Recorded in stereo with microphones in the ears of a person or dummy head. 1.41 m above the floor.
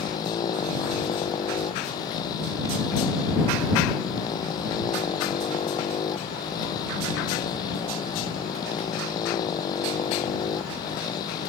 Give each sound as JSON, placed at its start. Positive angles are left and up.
{"t": 0.0, "sound": "a motorcycle", "side_deg": 20}